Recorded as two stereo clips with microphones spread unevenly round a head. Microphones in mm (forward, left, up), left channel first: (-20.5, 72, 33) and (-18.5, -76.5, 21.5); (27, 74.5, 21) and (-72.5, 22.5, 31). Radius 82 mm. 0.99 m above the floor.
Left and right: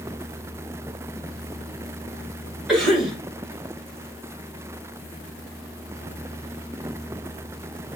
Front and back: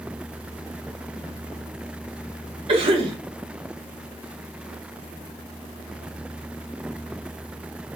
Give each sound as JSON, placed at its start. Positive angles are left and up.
{"t": 2.7, "sound": "a cough", "azimuth_deg": -175, "distance_m": 1.1}